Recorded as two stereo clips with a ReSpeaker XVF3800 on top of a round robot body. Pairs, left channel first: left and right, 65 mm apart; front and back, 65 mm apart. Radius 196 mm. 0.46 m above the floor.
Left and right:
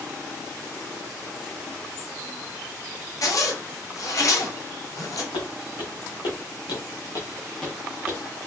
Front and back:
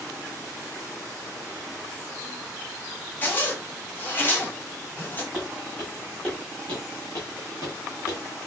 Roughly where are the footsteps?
Left.